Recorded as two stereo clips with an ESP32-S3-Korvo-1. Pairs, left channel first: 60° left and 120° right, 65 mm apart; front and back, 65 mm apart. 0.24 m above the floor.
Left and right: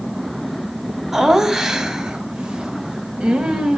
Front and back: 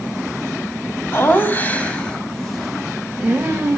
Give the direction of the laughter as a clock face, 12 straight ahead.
1 o'clock.